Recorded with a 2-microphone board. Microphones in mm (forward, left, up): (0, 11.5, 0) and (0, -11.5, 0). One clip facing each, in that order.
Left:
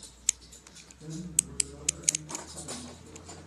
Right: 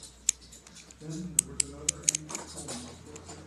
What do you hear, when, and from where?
1.0 s a man speaking: 25° right (ahead or behind), 3.5 m